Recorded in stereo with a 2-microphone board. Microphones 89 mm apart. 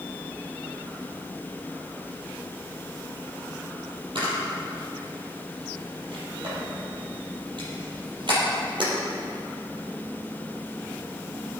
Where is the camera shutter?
60° right (ahead or behind), 5.5 m.